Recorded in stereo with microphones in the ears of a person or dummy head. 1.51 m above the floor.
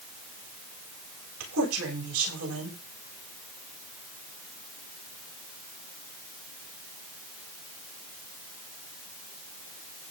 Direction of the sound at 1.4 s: 70° right (ahead or behind).